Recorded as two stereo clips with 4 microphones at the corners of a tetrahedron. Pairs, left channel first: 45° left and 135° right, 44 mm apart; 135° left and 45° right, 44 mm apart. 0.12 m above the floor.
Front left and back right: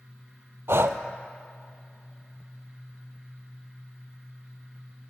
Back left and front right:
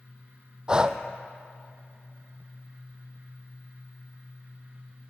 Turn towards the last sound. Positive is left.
turn(degrees=-115)